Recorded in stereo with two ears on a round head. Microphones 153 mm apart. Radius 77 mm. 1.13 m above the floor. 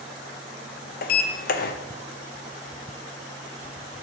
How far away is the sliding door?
About 0.7 m.